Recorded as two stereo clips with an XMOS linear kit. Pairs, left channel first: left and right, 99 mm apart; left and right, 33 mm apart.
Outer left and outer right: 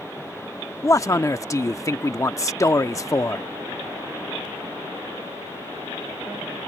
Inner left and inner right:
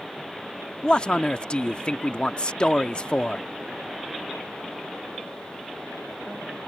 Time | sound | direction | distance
0.8 | a man speaking | 30° left (ahead or behind) | ?